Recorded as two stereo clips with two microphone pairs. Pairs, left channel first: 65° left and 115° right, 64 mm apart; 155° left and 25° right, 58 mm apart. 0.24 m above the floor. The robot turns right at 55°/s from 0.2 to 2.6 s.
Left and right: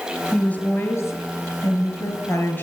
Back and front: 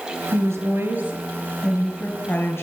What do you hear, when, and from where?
0.3 s a woman speaking: 15° right, 4 m; by 2.6 s 110° left, 4 m